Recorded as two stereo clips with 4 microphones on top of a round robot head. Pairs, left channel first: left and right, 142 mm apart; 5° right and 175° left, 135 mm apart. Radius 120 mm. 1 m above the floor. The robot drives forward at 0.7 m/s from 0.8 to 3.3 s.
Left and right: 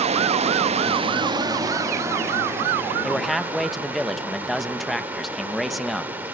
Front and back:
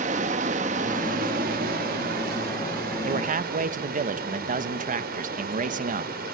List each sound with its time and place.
0.0 s running water: 135° right, 0.7 m; by 6.4 s 170° right, 2.5 m
3.0 s a man speaking: straight behind, 1.1 m